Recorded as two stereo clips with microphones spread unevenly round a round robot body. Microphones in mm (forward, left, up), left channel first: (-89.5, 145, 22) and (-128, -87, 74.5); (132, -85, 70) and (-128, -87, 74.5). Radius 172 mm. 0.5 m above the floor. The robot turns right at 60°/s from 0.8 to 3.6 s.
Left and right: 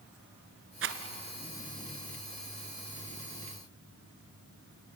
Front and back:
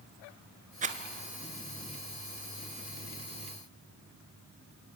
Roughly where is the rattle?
Behind right.